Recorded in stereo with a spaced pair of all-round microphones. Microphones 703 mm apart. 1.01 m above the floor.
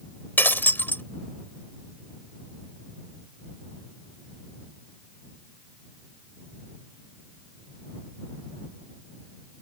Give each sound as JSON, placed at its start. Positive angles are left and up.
{"t": 0.4, "sound": "breaking glass", "side_deg": 5}